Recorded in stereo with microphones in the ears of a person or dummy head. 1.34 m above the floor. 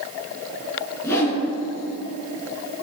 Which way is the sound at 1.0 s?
15° left (ahead or behind).